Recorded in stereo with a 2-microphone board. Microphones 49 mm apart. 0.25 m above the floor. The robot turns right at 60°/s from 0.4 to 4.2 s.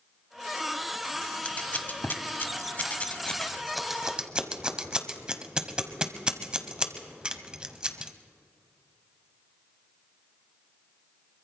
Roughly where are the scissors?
Left.